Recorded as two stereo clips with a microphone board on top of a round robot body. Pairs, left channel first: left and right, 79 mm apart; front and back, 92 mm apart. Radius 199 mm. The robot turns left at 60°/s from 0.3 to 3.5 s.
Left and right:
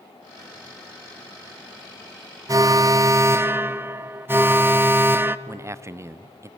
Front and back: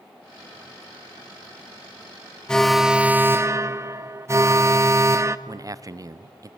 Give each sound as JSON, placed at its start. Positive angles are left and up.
{"t": 2.5, "sound": "an alarm", "azimuth_deg": -75, "distance_m": 0.8}
{"t": 5.5, "sound": "a man speaking", "azimuth_deg": -135, "distance_m": 0.7}